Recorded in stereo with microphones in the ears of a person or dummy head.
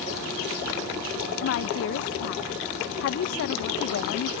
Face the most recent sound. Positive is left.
turn(degrees=75)  # may be behind; listen again after turning